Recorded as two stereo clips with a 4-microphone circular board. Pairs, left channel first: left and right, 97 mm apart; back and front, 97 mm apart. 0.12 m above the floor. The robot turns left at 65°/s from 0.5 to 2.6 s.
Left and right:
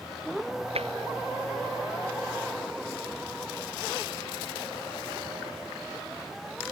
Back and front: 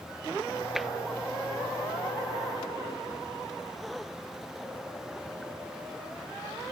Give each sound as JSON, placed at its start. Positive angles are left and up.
{"t": 0.8, "sound": "tapping", "azimuth_deg": -85}